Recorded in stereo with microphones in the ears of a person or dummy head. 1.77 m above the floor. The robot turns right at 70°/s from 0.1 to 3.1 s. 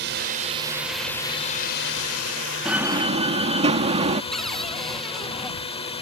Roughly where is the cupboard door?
Centre.